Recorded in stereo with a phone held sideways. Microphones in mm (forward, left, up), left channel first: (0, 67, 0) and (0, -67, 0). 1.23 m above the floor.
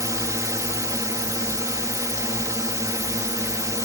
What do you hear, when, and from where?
0.0 s a drone: 25° right (ahead or behind)